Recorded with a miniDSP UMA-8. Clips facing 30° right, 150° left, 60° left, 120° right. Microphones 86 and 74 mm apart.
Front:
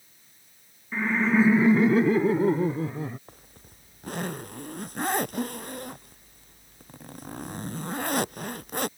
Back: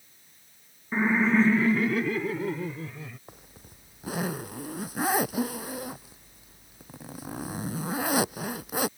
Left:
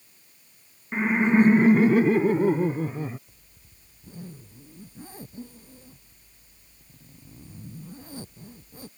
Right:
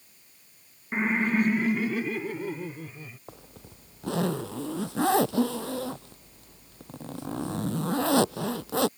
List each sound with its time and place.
0.9 s laughter: 160° left; by 3.2 s 20° left
3.3 s a zipper: 125° right